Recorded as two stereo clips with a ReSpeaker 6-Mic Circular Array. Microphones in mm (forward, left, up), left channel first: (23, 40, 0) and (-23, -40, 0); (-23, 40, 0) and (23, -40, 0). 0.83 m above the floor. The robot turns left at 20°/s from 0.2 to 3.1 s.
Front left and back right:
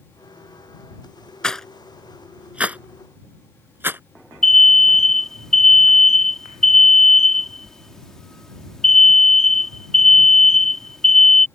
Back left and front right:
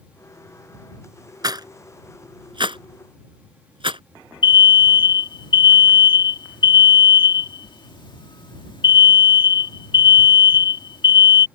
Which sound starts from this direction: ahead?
A rattle, at 1.4 s.